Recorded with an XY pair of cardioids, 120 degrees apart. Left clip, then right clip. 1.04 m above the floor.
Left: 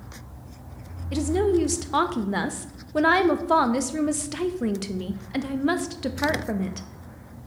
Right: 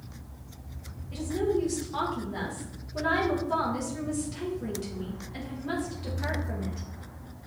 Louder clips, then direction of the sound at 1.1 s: Left 6 dB; 70° left.